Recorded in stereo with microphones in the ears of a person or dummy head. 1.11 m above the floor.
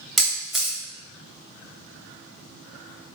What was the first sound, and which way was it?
A camera shutter, centre (ahead or behind).